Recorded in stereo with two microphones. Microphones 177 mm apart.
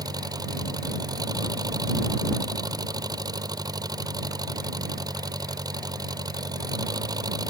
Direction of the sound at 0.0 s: 20° right (ahead or behind).